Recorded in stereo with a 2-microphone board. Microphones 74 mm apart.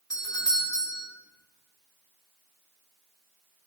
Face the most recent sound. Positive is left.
turn(degrees=55)  # may be behind; listen again after turning